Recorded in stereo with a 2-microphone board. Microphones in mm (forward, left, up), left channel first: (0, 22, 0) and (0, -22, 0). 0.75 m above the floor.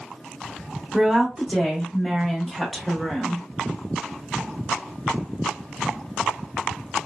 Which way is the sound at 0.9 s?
Centre (ahead or behind).